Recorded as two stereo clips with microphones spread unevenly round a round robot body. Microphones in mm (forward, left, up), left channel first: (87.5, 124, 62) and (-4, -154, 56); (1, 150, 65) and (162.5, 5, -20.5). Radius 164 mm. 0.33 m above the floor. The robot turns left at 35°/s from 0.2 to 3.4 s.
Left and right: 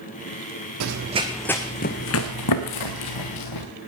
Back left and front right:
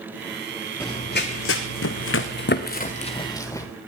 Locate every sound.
0.8 s running footsteps: 150° right, 0.6 m; by 3.7 s 65° left, 2.0 m